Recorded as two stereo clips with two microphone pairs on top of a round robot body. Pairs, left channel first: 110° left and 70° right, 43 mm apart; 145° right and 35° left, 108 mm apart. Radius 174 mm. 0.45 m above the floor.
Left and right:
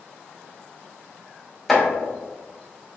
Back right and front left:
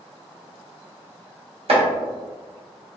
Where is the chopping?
25° left, 1.4 m.